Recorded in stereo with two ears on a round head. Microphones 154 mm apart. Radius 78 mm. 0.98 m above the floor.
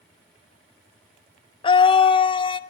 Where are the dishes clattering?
No dishes clattering in this recording.